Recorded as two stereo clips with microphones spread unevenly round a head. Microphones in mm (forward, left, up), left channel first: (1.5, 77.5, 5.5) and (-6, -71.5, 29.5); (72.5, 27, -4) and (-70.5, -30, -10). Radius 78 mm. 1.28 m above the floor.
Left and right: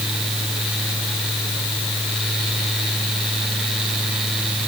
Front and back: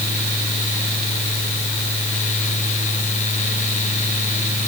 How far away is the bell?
No bell in this recording.